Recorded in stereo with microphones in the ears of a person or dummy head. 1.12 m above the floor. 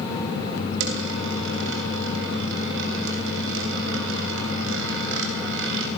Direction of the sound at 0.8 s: 80° right.